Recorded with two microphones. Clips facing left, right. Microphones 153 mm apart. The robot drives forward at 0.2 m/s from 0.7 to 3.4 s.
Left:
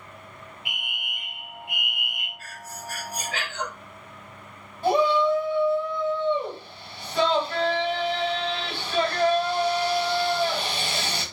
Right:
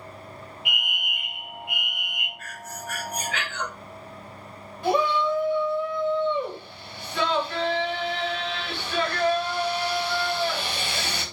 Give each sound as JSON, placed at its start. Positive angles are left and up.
{"t": 0.7, "sound": "a fire alarm", "side_deg": 35, "distance_m": 2.5}
{"t": 2.4, "sound": "breathing", "side_deg": 35, "distance_m": 1.0}
{"t": 4.8, "sound": "a shout", "side_deg": 35, "distance_m": 1.8}